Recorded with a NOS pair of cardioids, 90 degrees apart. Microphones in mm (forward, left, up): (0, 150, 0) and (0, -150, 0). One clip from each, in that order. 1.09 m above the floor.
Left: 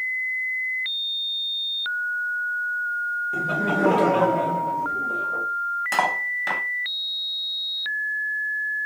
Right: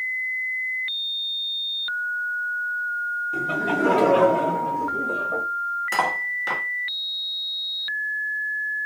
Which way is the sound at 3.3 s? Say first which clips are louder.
Even; 15° left.